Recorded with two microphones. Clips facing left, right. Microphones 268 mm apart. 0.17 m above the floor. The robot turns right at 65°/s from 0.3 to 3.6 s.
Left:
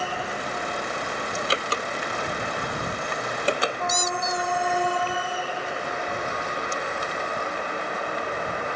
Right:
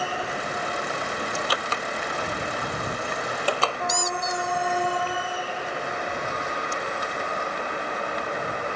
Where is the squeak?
20° left (ahead or behind).